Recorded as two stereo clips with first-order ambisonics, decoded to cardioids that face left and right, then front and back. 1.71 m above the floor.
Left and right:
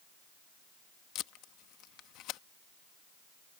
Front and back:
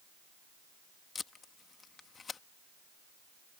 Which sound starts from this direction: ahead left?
Tape being pulled, at 1.1 s.